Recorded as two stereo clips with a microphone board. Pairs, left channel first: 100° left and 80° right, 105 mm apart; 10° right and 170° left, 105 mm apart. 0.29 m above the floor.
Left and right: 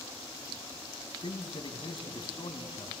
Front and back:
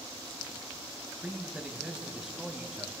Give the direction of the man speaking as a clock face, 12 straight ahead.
9 o'clock.